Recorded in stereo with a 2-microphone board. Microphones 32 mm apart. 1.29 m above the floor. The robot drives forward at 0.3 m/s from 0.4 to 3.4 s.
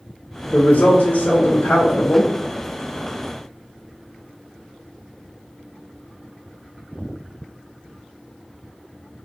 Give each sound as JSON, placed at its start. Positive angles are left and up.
{"t": 0.5, "sound": "a woman speaking", "side_deg": 50, "distance_m": 0.8}